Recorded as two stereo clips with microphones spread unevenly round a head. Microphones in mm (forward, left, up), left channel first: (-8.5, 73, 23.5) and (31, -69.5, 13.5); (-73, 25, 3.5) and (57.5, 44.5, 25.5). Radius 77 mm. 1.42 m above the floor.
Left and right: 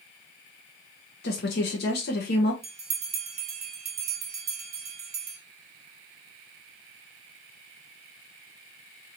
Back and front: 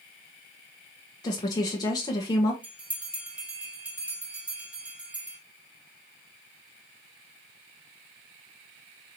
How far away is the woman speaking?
About 0.9 m.